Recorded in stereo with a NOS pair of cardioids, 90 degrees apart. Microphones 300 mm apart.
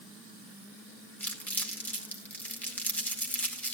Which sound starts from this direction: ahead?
Crumpling, at 1.2 s.